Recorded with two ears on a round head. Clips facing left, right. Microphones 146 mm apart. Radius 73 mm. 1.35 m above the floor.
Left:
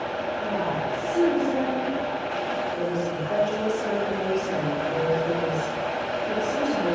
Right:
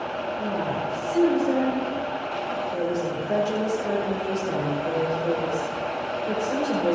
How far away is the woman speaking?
About 5.5 m.